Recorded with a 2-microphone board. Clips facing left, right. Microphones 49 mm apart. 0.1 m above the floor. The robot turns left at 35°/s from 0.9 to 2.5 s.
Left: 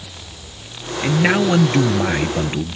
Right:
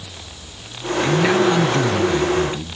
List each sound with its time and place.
1.0 s a man speaking: 145° left; by 2.8 s 90° left